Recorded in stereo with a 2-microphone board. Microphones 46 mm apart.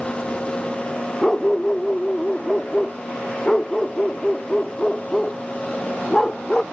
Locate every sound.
1.2 s a dog barking: 10° left (ahead or behind)